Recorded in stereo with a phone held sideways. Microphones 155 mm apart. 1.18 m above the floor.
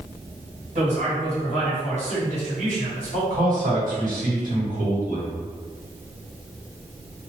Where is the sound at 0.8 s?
55° right (ahead or behind), 1.8 m.